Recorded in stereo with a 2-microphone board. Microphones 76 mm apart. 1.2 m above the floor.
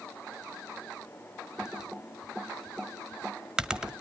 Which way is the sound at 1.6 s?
10° right (ahead or behind).